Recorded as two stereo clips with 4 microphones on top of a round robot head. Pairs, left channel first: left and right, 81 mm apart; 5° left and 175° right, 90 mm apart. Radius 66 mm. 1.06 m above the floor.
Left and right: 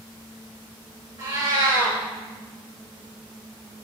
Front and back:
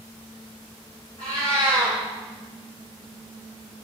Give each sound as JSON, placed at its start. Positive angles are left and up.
{"t": 1.2, "sound": "a cat meowing", "azimuth_deg": -50, "distance_m": 3.5}